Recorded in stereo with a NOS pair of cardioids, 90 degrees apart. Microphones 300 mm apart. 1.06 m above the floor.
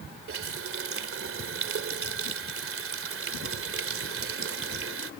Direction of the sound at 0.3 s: 45° right.